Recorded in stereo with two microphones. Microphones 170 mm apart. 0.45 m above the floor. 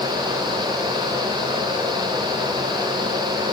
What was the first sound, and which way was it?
Only background noise.